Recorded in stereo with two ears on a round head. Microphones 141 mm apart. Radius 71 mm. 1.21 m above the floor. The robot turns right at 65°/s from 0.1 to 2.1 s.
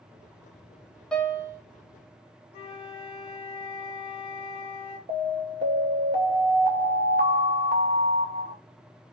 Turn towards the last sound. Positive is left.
turn(degrees=-45)  # may be behind; listen again after turning